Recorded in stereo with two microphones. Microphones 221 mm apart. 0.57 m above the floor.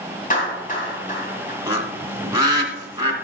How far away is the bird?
About 1.6 m.